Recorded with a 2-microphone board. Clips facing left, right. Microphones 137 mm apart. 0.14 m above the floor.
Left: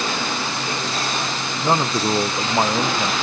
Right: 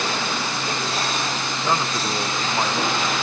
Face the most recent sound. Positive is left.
turn(degrees=30)  # may be behind; listen again after turning